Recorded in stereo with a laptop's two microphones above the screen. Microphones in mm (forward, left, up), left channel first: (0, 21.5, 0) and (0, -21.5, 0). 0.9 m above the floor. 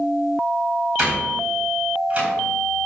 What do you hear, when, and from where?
1.0 s a door slam: 30° right (ahead or behind), 4 m